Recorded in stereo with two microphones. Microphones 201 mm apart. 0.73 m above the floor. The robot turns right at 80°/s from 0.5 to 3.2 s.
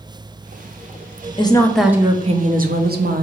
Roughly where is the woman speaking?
Behind left.